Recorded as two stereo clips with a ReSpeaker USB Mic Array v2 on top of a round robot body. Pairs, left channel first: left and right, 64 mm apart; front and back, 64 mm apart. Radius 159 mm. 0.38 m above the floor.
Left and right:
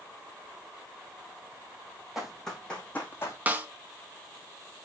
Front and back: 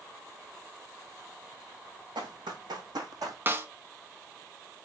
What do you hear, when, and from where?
2.1 s running footsteps: 175° right, 1.6 m; by 3.4 s 145° left, 1.3 m
3.5 s a snare drum: 145° right, 1.4 m